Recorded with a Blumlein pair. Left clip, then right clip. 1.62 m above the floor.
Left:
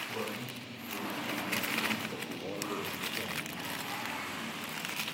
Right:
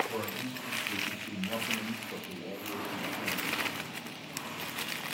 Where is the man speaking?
60° right, 1.4 m; by 3.6 s 60° left, 0.9 m.